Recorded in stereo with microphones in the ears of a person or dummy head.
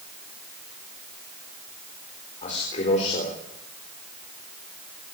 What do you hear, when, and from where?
2.4 s a man speaking: 40° left (ahead or behind), 4 m